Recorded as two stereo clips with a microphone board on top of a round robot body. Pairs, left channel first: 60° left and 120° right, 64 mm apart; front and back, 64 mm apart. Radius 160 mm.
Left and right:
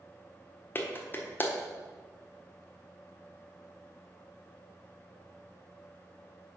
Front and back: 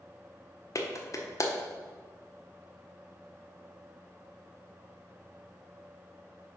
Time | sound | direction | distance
0.8 | a clap | 10° left | 1.4 m